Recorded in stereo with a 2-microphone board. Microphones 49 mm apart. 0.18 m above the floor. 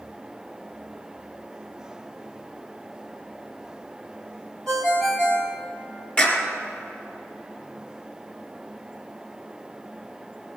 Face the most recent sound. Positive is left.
turn(degrees=25)  # may be behind; listen again after turning